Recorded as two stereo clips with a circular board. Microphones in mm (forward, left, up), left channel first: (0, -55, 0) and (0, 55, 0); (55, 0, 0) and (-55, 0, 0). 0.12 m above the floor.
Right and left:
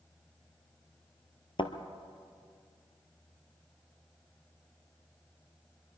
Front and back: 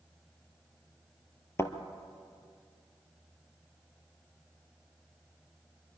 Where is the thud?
60° right, 1.3 m.